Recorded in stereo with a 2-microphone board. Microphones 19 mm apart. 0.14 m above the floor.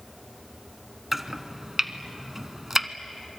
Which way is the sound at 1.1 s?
20° right (ahead or behind).